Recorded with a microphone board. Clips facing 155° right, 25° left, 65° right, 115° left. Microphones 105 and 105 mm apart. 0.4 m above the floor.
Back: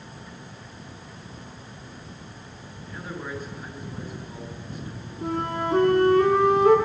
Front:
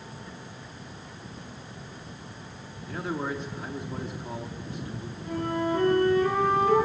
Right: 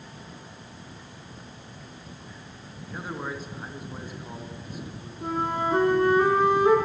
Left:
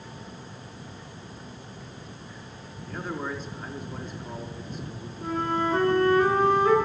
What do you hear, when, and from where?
2.9 s a man speaking: 10° left, 5 m
5.2 s a flute: 135° right, 10 m